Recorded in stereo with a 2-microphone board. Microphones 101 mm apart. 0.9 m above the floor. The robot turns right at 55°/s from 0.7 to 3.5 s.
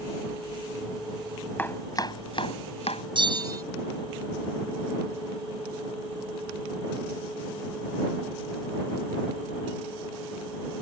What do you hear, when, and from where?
1.6 s chopping: 20° left (ahead or behind); by 3.0 s 80° left
3.1 s a bell: 55° right (ahead or behind); by 3.6 s 40° right (ahead or behind)